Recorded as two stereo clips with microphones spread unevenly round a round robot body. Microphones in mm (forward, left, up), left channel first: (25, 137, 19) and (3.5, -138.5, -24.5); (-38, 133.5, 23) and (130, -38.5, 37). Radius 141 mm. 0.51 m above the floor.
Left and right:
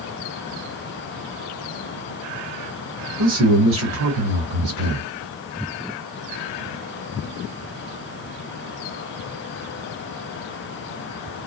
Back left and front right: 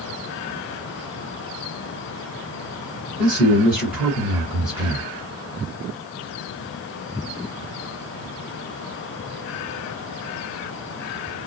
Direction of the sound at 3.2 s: 130° right.